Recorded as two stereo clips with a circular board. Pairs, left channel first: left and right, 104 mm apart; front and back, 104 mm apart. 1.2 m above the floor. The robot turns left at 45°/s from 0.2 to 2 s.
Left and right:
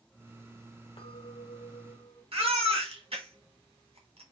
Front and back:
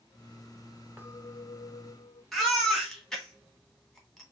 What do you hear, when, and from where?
1.0 s a clink: 110° left, 1.5 m; by 2.2 s 65° left, 1.5 m
2.3 s a baby crying: 90° right, 1.6 m